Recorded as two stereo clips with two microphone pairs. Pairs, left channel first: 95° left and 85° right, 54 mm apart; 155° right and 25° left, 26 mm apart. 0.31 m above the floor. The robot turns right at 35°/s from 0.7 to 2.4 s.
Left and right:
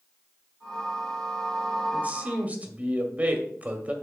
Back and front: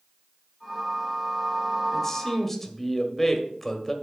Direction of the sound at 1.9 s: 110° right.